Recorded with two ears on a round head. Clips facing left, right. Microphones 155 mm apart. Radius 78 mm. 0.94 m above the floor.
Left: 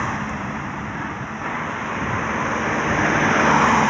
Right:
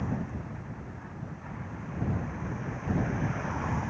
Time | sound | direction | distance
0.0 | a vehicle | 75° left (ahead or behind) | ?